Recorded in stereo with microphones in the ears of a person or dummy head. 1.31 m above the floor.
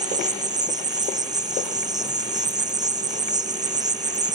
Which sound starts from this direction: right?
An insect, at 0.0 s.